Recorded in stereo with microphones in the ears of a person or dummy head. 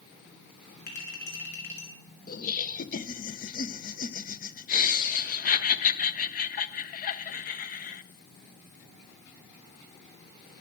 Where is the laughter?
40° left (ahead or behind), 0.7 m.